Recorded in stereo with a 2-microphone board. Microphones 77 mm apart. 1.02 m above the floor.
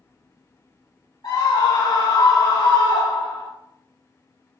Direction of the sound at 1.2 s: 75° left (ahead or behind).